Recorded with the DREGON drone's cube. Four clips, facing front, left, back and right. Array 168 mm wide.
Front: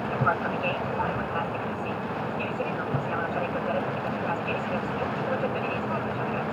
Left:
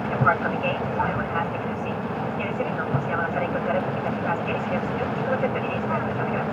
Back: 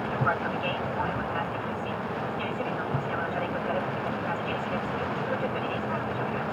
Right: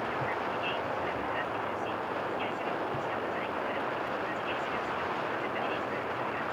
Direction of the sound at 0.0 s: 80° left.